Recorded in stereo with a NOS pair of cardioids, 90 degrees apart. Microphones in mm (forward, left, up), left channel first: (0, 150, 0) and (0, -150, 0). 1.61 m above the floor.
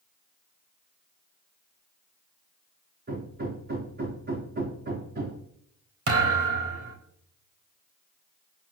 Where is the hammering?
35° right, 4 m.